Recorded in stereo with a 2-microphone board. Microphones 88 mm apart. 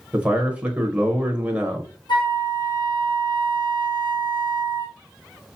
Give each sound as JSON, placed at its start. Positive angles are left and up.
{"t": 0.1, "sound": "a man speaking", "side_deg": -15, "distance_m": 0.9}
{"t": 2.1, "sound": "a flute", "side_deg": 60, "distance_m": 2.5}